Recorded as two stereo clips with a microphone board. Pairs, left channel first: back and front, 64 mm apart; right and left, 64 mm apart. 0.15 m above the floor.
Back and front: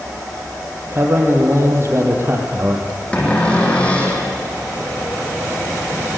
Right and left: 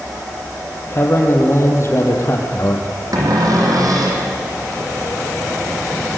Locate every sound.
0.9 s a man speaking: 45° right, 5 m
3.1 s a cupboard door: 110° left, 5.5 m